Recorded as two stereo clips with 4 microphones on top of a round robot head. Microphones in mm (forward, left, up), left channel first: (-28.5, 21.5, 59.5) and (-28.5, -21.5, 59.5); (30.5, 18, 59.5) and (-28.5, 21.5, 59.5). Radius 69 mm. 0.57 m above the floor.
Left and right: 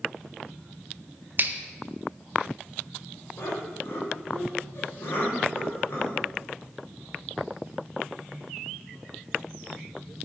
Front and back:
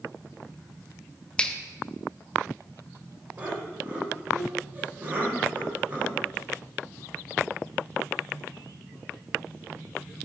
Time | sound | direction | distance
1.4 | a finger snap | 70° right | 0.5 m
3.4 | laughter | 115° left | 2.5 m